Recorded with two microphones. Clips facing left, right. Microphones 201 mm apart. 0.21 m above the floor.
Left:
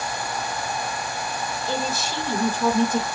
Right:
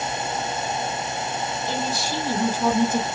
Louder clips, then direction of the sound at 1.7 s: Left 1 dB; 15° right (ahead or behind).